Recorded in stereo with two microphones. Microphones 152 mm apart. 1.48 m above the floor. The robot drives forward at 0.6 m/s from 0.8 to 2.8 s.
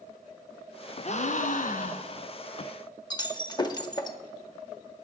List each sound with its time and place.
1.0 s a gasp: 50° left (ahead or behind), 0.8 m; by 2.3 s 55° left (ahead or behind), 0.7 m
3.1 s breaking glass: 30° left (ahead or behind), 1.0 m